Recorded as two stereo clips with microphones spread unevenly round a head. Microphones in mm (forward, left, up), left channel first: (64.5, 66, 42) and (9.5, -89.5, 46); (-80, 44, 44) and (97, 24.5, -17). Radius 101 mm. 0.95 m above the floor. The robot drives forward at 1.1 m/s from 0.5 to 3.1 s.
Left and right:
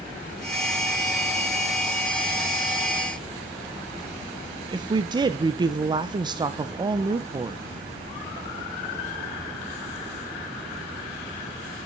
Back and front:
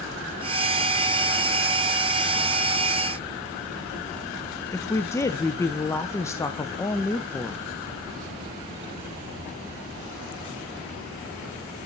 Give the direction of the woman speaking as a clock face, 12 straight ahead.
3 o'clock.